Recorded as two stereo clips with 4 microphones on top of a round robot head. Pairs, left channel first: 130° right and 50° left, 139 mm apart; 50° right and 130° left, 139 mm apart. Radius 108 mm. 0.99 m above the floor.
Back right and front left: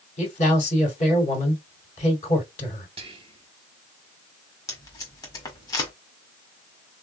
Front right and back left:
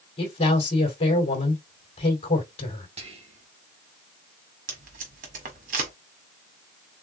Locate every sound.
0.2 s a man speaking: 95° right, 3.5 m
3.0 s whispering: 95° left, 1.8 m
4.7 s tape being pulled: 160° left, 1.4 m